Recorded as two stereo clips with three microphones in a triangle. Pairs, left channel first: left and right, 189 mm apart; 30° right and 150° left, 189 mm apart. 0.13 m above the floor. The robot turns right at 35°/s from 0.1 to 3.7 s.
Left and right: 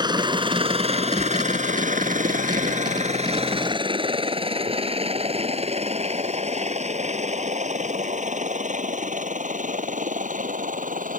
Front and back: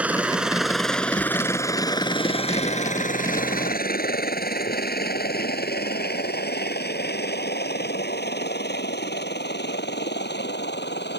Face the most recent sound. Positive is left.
turn(degrees=-50)